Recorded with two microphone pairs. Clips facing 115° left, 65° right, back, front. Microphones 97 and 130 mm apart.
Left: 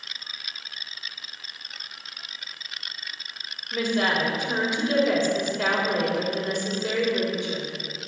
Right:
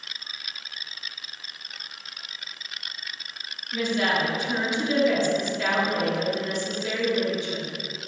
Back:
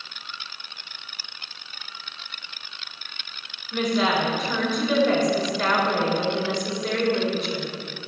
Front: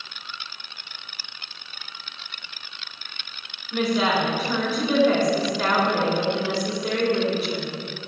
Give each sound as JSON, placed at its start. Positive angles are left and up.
{"t": 3.7, "sound": "a woman speaking", "azimuth_deg": 80, "distance_m": 3.5}